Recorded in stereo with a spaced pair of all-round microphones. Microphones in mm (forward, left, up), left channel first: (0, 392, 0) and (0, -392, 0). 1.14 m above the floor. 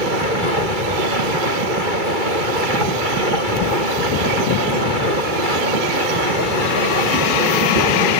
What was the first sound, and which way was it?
A machine running, 85° right.